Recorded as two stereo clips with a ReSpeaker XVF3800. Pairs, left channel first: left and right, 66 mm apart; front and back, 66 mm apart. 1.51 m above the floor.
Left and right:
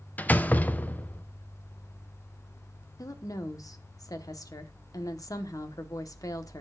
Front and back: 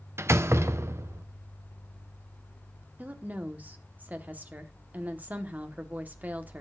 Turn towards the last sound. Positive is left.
turn(degrees=115)